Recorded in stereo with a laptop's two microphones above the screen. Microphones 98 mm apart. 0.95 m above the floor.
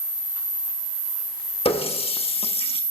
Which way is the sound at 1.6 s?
75° left (ahead or behind).